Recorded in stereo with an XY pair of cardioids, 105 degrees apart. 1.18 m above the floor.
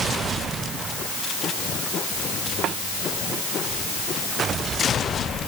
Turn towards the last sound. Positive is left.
turn(degrees=-70)